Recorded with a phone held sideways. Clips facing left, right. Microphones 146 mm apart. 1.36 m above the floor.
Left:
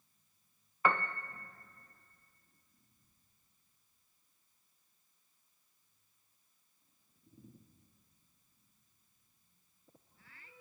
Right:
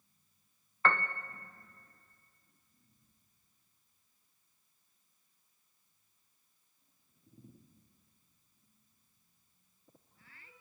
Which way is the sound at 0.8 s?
10° left (ahead or behind).